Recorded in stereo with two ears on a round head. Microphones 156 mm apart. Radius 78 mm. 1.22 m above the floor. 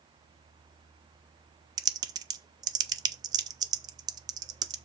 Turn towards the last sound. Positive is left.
turn(degrees=-25)  # may be behind; listen again after turning